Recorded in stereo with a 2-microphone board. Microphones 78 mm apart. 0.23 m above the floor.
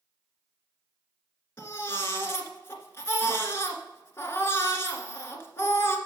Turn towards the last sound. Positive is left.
turn(degrees=30)  # may be behind; listen again after turning